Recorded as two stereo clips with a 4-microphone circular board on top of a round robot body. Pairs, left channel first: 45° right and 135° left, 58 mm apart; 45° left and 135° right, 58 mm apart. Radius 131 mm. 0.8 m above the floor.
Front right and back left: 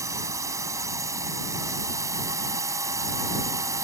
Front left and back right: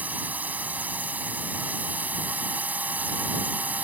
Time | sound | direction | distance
0.0 | a drone | 160° left | ?